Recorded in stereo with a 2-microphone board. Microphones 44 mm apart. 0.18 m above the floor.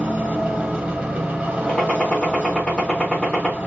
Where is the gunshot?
15° left (ahead or behind), 1.7 m.